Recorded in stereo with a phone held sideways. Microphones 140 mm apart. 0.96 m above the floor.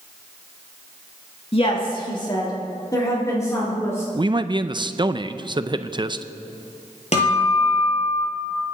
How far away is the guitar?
About 7 m.